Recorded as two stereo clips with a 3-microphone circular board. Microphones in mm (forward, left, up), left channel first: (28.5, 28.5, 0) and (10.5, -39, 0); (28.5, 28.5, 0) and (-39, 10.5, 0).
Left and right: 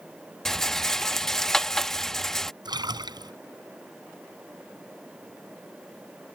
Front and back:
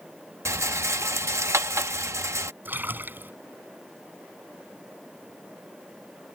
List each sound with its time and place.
0.5 s a rattle: 160° left
2.6 s a splash: 105° right